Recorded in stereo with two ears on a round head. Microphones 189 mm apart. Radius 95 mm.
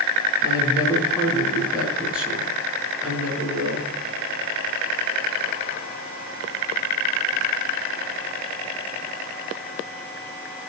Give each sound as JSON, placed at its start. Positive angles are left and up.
{"t": 0.4, "sound": "a woman speaking", "side_deg": -5, "distance_m": 5.5}